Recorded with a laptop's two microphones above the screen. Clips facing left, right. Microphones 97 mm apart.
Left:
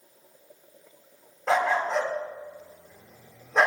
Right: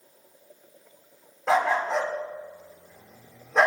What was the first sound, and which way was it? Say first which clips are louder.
A dog barking: right 1 dB; 5° right (ahead or behind).